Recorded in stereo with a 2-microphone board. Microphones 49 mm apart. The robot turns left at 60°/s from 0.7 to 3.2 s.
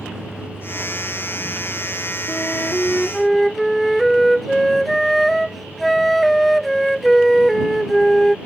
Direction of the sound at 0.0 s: 10° left (ahead or behind).